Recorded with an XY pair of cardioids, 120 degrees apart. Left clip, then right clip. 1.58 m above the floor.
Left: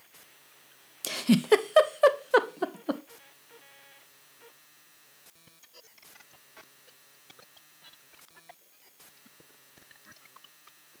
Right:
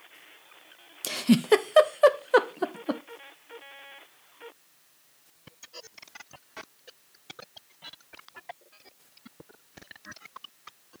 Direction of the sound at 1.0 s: Straight ahead.